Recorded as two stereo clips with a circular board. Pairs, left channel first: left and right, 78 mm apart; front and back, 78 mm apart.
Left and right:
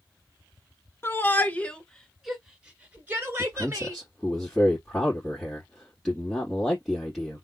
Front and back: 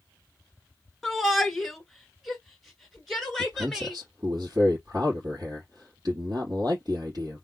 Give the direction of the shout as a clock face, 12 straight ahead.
9 o'clock.